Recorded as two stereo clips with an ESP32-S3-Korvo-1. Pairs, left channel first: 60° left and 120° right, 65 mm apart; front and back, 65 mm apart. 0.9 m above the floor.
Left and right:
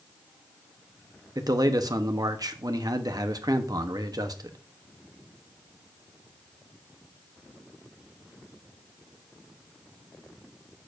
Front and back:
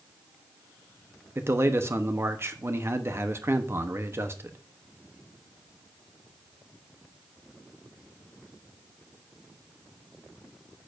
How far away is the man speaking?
About 1.0 m.